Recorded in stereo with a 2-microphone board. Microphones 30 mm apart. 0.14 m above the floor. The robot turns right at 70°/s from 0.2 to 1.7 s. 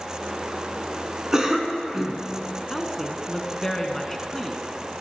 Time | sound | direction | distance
1.3 | a cough | 20° right (ahead or behind) | 1.3 m
2.7 | a woman speaking | 10° left (ahead or behind) | 1.1 m